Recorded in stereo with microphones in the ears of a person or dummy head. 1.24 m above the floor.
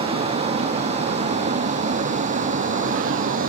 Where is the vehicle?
30° right (ahead or behind); by 3.5 s 45° right (ahead or behind).